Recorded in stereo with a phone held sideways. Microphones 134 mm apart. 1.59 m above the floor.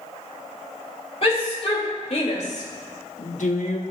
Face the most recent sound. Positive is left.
turn(degrees=60)  # may be behind; listen again after turning